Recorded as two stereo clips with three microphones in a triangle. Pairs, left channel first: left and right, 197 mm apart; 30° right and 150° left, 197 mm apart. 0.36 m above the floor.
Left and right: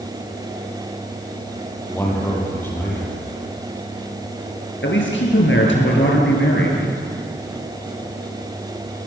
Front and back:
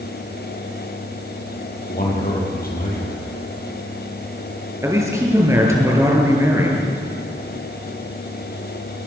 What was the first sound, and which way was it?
A man speaking, 10° left.